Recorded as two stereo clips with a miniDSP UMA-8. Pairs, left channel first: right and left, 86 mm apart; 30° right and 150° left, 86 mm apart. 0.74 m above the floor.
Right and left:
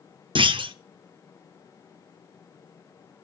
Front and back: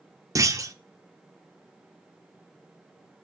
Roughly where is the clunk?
Left.